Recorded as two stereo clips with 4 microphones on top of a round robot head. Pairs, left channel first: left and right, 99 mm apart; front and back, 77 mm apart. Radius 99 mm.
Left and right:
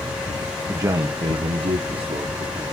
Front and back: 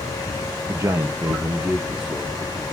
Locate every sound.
0.7 s a man speaking: 150° right, 0.6 m; by 2.7 s 90° right, 1.3 m